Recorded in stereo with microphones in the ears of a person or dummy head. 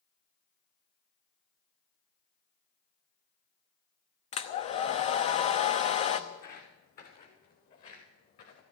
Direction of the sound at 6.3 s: 55° left (ahead or behind).